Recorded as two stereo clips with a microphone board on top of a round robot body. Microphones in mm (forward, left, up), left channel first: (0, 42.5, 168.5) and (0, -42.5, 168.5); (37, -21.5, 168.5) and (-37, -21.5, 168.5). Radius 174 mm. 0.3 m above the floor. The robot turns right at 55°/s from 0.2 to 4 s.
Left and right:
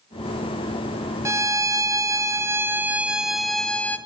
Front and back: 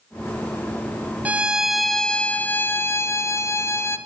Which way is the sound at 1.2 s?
120° right.